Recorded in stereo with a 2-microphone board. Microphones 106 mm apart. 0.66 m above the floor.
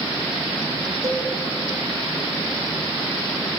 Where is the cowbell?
35° right (ahead or behind), 2 m.